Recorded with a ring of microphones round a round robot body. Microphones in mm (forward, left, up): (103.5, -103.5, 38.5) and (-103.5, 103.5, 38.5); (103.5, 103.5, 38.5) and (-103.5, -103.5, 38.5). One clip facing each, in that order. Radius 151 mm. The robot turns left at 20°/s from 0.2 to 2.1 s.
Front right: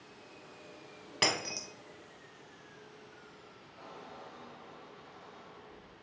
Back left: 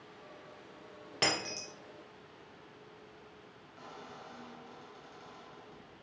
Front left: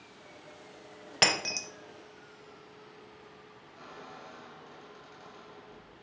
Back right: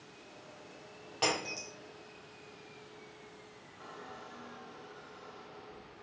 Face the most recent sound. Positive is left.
turn(degrees=75)